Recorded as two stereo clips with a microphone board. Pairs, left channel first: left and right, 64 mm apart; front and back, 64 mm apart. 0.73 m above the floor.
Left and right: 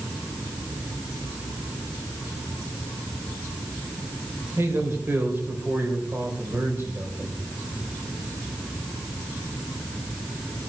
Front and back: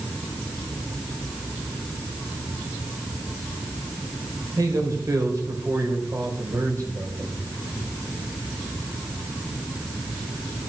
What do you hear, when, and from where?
4.6 s a man speaking: 145° right, 3 m